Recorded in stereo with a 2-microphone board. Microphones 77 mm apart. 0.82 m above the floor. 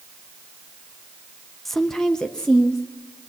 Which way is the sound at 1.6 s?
Centre (ahead or behind).